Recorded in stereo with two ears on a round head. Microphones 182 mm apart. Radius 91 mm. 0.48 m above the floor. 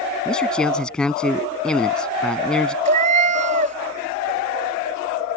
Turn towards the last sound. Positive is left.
turn(degrees=-40)  # may be behind; listen again after turning